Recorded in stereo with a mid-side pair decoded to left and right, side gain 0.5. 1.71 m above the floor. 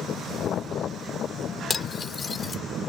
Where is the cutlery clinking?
35° left.